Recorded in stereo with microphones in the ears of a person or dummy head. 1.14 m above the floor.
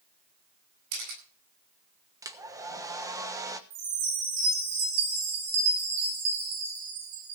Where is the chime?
85° right, 5.5 m.